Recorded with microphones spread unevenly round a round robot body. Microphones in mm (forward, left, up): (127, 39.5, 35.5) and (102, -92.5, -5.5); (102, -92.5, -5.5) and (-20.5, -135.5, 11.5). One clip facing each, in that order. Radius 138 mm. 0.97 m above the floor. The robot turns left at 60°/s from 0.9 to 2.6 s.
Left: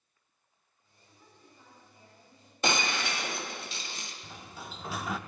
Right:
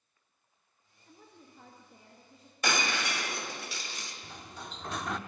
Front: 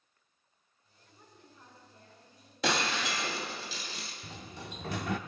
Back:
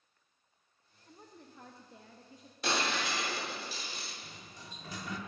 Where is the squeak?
No squeak in this recording.